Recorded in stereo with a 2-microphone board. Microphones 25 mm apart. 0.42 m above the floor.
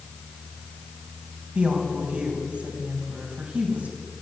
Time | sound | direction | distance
1.6 | a woman speaking | 50° right (ahead or behind) | 3.5 m